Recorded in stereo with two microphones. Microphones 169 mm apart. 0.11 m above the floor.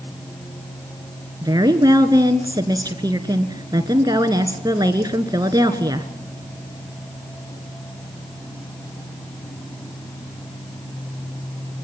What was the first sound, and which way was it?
A woman speaking, 25° right (ahead or behind).